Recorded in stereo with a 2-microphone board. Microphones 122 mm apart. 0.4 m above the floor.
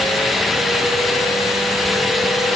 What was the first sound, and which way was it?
Only background noise.